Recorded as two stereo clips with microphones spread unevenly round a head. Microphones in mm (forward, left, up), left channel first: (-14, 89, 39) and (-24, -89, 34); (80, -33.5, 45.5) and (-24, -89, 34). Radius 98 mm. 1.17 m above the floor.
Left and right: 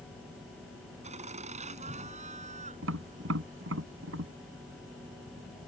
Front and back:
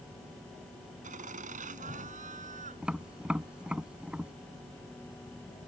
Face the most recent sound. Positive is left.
turn(degrees=-70)